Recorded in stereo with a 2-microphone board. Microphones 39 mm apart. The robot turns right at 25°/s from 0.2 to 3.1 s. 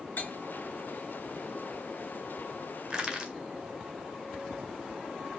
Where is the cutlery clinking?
55° left (ahead or behind), 3 m; by 0.3 s 50° left (ahead or behind), 3 m.